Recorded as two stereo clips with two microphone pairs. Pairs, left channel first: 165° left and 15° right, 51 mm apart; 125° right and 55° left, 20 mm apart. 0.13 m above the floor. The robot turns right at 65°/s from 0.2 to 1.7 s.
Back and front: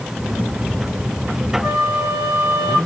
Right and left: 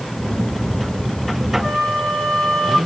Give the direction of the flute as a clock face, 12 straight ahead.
4 o'clock.